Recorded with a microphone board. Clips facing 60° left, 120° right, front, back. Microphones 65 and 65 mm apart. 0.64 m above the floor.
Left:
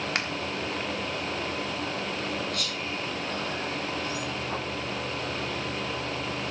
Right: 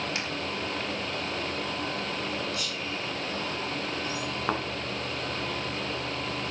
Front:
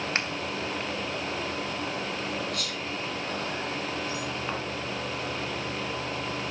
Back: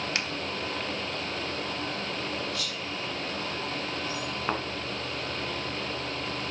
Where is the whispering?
40° left, 4.5 m.